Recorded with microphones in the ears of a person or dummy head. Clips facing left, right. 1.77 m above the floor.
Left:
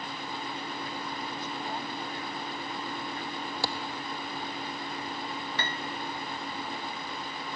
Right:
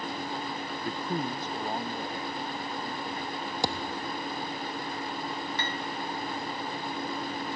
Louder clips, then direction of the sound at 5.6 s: Right 1 dB; 55° left (ahead or behind).